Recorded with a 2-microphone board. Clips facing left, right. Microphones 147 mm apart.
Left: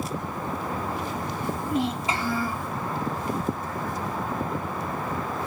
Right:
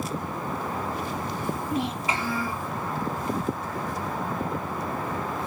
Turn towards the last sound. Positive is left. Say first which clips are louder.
# left 3 dB
turn(degrees=20)  # may be behind; listen again after turning